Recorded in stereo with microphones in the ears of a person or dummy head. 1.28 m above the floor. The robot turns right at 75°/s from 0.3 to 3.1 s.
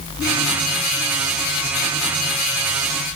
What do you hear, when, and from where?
Only background noise.